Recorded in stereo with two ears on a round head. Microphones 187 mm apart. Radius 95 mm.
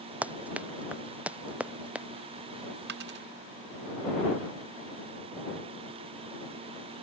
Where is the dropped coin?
50° right (ahead or behind).